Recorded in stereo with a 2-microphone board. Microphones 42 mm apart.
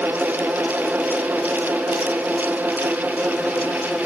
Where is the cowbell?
I don't hear a cowbell.